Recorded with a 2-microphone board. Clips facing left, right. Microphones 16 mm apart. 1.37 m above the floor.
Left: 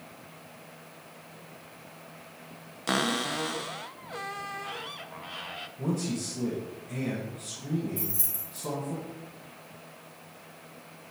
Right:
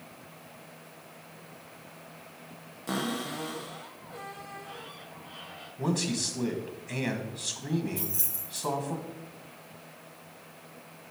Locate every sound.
2.9 s a cupboard door: 55° left (ahead or behind), 0.5 m
5.8 s a man speaking: 85° right, 1.5 m
8.0 s keys jangling: 35° right (ahead or behind), 2.5 m